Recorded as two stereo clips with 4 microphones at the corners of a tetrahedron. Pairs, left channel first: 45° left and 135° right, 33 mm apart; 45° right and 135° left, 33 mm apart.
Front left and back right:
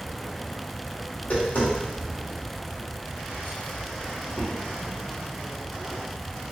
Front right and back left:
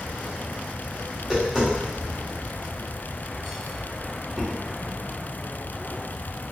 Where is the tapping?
65° left, 1.7 m.